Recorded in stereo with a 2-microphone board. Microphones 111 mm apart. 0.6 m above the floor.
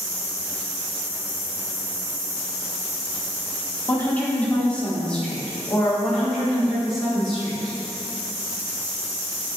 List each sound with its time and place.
3.9 s a woman speaking: 15° left (ahead or behind), 1.4 m; by 7.8 s centre (ahead or behind), 3.5 m